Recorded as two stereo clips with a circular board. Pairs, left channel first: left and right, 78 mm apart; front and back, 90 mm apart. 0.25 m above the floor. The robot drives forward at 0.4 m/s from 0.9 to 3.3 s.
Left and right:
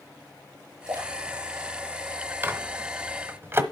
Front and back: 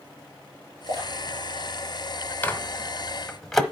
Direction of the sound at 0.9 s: 135° right.